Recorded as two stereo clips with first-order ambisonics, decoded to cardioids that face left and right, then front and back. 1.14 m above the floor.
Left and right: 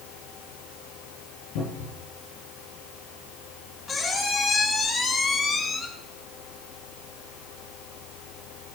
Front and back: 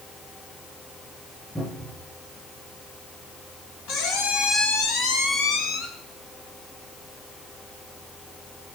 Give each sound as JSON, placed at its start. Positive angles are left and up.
{"t": 1.6, "sound": "a cupboard door", "azimuth_deg": 80, "distance_m": 9.0}
{"t": 3.9, "sound": "a squeak", "azimuth_deg": 25, "distance_m": 1.5}